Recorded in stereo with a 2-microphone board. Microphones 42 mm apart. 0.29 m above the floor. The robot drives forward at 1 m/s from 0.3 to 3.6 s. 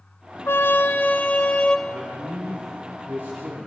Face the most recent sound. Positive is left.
turn(degrees=-45)  # may be behind; listen again after turning